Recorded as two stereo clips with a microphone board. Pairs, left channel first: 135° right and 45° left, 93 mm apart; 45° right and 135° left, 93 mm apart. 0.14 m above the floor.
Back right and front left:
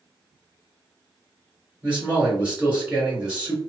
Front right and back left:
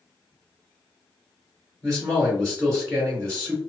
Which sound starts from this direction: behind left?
A man speaking, at 1.8 s.